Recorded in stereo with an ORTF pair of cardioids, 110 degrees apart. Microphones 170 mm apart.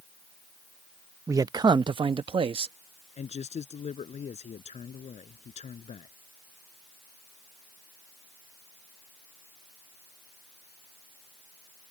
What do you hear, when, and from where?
1.3 s a man speaking: 15° right; by 2.8 s 30° right
3.2 s a man speaking: 40° left